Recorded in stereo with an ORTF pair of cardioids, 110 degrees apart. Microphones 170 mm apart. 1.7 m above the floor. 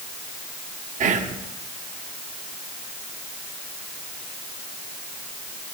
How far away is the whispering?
About 1.3 m.